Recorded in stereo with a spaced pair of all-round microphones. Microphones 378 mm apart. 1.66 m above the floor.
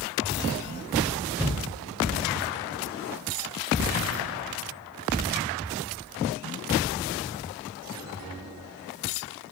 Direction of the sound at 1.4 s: 5° right (ahead or behind).